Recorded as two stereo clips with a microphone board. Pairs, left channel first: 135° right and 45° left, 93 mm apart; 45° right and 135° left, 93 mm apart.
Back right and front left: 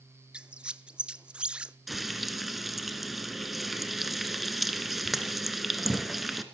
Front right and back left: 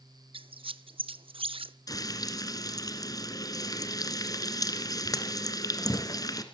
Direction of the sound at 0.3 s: 125° left.